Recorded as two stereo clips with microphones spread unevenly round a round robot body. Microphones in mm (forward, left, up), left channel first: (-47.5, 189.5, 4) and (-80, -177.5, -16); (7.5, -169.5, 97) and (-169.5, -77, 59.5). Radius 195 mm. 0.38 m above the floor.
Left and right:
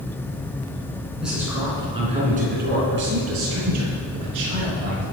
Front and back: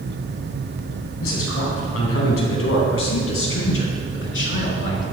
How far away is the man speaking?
About 3.5 m.